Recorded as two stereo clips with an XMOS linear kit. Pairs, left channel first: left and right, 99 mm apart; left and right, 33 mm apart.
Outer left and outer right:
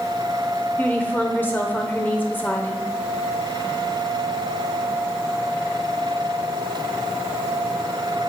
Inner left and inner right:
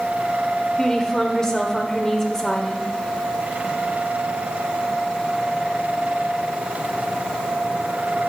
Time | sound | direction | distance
0.8 | a woman speaking | 20° left (ahead or behind) | 1.2 m